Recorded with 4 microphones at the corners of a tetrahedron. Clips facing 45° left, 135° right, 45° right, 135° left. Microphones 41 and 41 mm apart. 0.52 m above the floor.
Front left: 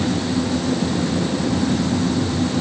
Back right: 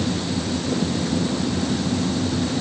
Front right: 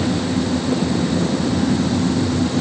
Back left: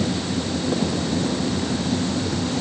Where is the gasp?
No gasp in this recording.